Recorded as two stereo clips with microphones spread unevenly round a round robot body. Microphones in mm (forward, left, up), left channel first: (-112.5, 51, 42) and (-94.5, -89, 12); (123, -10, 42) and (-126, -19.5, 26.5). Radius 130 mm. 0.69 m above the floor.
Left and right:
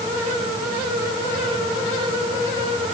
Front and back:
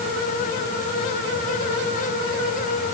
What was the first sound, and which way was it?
Only background noise.